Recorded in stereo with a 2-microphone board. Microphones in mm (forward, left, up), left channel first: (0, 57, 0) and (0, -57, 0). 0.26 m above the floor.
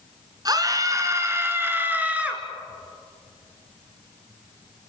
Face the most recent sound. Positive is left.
turn(degrees=-10)  # may be behind; listen again after turning